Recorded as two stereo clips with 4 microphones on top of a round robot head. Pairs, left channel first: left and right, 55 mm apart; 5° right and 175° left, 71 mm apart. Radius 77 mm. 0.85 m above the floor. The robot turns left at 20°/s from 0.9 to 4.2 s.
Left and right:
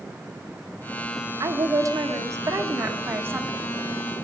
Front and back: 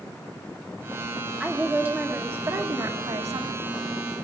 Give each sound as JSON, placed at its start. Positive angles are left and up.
{"t": 1.4, "sound": "a woman speaking", "azimuth_deg": -100, "distance_m": 1.8}